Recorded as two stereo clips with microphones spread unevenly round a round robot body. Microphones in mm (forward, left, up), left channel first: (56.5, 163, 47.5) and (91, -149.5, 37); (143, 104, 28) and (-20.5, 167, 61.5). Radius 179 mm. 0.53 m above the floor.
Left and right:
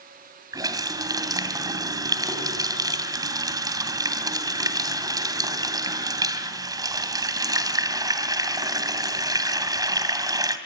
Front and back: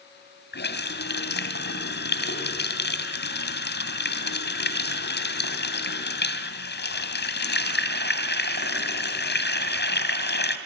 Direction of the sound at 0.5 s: 5° right.